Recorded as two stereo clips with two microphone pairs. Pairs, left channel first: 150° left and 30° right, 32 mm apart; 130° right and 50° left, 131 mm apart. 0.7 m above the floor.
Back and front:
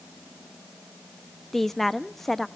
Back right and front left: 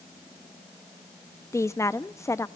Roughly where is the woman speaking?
Behind right.